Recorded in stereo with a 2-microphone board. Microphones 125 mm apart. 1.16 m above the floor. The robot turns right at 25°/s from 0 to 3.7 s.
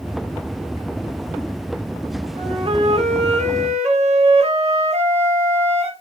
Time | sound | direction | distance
2.4 | a flute | 125° right | 0.5 m